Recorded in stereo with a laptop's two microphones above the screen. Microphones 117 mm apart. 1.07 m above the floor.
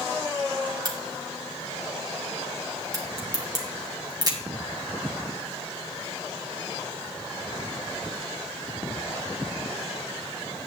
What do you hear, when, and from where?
0.8 s a crack: 35° right (ahead or behind), 2 m